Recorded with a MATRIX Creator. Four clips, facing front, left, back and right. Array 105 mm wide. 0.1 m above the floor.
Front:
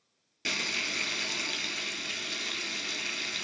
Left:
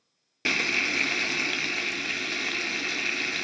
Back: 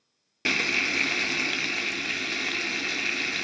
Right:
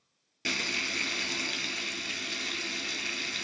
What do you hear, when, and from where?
0.5 s frying: 135° left, 0.5 m